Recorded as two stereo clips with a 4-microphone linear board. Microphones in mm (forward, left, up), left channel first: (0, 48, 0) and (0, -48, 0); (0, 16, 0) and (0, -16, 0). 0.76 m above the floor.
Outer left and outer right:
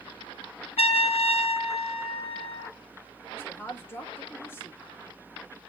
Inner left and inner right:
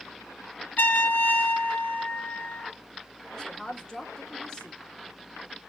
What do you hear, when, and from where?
0.8 s a trumpet: 85° left, 0.7 m
3.3 s a woman speaking: 20° left (ahead or behind), 1.0 m